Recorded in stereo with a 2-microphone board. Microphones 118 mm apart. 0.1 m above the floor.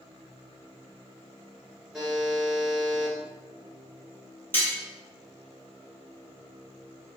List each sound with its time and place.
1.9 s a buzzer: centre (ahead or behind), 1.3 m
4.5 s cutlery clinking: 15° left (ahead or behind), 1.5 m